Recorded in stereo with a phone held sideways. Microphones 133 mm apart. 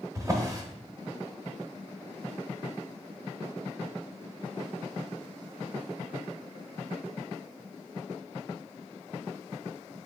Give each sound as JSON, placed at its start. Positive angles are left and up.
{"t": 0.1, "sound": "a drawer", "side_deg": -25, "distance_m": 1.0}